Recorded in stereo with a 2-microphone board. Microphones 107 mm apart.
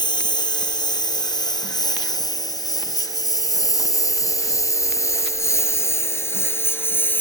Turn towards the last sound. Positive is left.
turn(degrees=20)  # may be behind; listen again after turning